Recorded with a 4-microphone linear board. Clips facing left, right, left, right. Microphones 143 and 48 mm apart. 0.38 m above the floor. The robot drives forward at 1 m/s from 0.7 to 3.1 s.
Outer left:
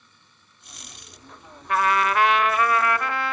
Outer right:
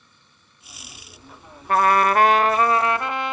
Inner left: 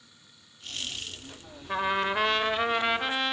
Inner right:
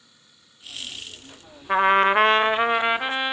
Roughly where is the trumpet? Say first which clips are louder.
Outer right 4 dB, inner right 10 dB; right.